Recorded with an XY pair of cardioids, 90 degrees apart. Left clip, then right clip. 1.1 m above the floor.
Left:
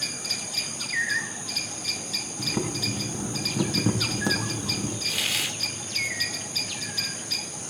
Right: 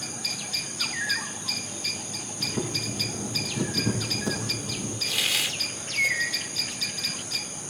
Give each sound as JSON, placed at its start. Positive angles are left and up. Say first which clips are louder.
{"t": 2.4, "sound": "boiling", "louder": "right 1 dB", "azimuth_deg": 55, "distance_m": 9.0}
{"t": 5.1, "sound": "a hiss", "louder": "right 1 dB", "azimuth_deg": -10, "distance_m": 3.5}